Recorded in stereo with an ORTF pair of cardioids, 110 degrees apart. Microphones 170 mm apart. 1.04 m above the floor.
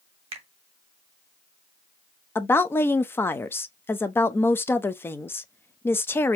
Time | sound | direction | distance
0.3 | a finger snap | 30° right | 1.9 m
2.4 | a woman speaking | 15° left | 0.7 m